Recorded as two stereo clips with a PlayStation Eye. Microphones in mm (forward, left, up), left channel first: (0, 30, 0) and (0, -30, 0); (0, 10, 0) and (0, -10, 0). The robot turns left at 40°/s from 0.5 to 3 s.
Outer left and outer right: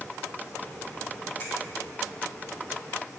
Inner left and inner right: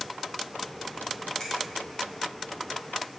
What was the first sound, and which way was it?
A finger snap, 30° left (ahead or behind).